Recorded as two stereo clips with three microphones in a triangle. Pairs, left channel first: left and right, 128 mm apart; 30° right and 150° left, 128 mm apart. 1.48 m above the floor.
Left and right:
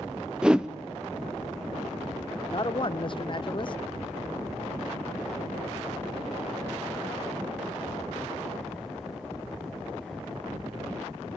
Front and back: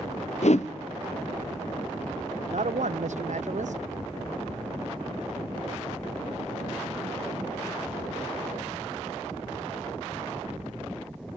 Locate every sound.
0.4 s a whoosh: 5° right, 0.7 m
2.5 s a man speaking: 135° left, 0.6 m